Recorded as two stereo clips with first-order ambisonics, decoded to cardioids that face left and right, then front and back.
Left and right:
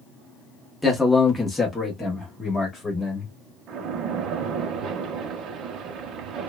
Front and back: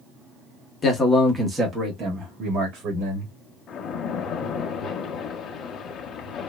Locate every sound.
0.8 s a man speaking: 5° left, 0.7 m; by 3.3 s 170° left, 1.4 m
3.7 s a splash: 55° right, 0.5 m